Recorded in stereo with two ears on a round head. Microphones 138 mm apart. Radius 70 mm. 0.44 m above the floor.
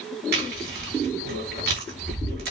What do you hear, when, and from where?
0.3 s chewing: 80° right, 5.5 m